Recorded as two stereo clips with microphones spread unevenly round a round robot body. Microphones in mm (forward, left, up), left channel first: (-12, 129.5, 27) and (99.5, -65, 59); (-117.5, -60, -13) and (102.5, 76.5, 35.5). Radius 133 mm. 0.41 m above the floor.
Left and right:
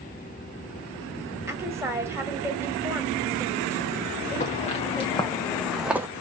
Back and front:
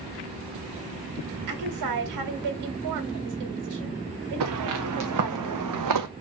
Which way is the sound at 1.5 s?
20° left.